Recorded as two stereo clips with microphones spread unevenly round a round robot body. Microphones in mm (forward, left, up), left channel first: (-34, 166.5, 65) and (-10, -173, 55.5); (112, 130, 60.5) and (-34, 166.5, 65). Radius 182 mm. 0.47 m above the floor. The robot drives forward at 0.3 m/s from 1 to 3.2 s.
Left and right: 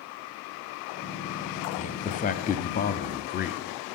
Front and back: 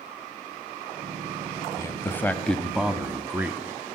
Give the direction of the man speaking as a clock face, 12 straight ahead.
11 o'clock.